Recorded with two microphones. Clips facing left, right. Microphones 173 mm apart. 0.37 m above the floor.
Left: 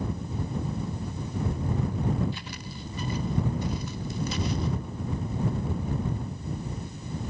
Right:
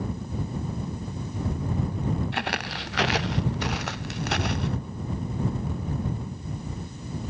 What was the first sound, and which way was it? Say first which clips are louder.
Footsteps: right 9 dB; 70° right (ahead or behind).